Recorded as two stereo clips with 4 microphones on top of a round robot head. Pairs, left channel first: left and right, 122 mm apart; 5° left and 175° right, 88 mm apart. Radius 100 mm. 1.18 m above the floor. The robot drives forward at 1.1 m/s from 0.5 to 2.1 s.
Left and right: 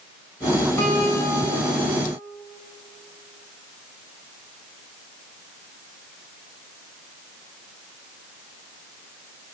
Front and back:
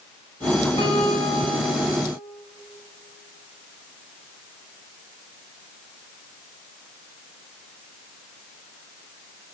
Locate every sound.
0.8 s a guitar: 15° left, 7.5 m; by 2.0 s 20° left, 6 m